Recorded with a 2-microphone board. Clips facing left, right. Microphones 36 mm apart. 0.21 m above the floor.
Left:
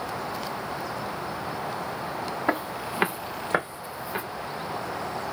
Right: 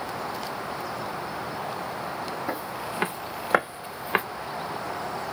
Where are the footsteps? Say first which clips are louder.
Left 3 dB; 40° left (ahead or behind), 1.1 m; by 4.2 s 50° right (ahead or behind), 1.0 m.